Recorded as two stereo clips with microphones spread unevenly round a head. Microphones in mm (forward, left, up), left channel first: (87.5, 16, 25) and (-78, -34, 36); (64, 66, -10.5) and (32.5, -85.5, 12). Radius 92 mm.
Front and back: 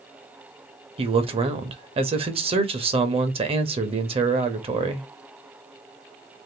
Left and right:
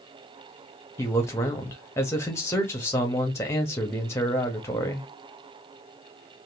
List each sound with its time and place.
1.0 s a man speaking: 145° left, 0.7 m